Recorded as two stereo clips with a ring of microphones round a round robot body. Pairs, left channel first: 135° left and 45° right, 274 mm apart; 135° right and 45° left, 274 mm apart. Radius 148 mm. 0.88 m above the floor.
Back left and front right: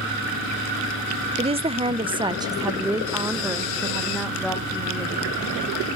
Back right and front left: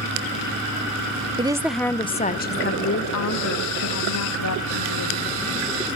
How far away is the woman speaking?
About 0.6 m.